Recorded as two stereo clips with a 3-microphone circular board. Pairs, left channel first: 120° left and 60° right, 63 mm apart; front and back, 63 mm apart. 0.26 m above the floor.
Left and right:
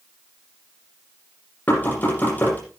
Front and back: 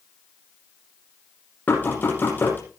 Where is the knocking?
60° left, 8 m.